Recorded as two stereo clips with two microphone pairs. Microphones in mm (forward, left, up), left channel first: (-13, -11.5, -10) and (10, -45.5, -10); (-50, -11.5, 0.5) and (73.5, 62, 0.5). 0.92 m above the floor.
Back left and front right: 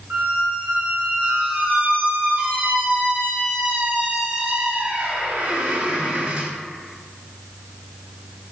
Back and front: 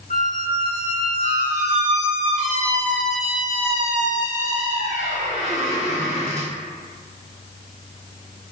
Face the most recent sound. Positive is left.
turn(degrees=-5)